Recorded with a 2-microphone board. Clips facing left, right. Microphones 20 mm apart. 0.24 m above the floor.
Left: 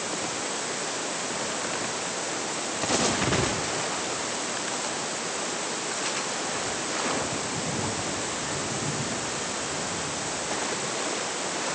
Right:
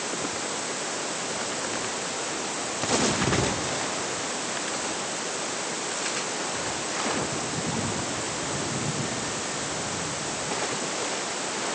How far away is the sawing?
I don't hear sawing.